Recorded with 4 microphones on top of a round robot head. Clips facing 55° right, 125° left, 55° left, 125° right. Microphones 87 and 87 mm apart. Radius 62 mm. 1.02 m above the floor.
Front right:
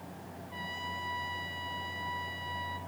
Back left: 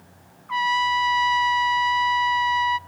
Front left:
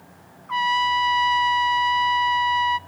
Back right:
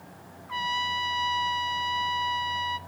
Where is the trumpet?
105° left, 0.5 m.